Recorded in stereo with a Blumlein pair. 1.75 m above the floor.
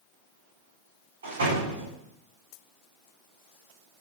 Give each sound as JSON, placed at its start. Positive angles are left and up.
{"t": 1.2, "sound": "a door slam", "azimuth_deg": -65, "distance_m": 3.5}